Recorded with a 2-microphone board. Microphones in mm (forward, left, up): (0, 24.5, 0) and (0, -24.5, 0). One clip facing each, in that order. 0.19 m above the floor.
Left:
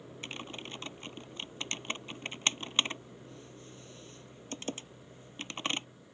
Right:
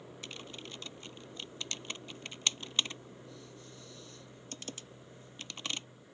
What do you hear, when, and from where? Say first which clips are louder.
0.2 s typing on a keyboard: left 5 dB; 35° left (ahead or behind)